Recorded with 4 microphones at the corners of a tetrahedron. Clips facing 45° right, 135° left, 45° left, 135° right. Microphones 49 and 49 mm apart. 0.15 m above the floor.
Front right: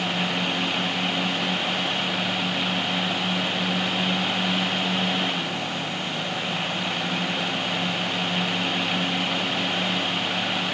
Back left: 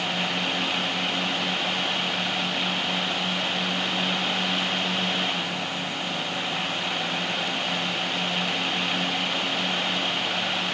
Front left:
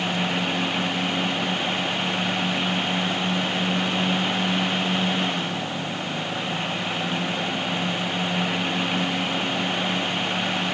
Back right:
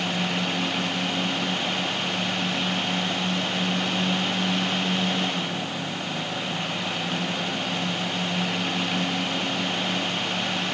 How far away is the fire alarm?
I don't hear a fire alarm.